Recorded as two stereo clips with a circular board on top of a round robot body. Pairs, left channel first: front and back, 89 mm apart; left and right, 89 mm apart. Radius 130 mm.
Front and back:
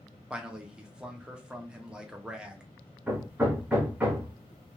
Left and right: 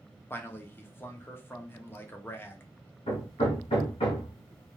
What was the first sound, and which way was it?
A man speaking, 110° left.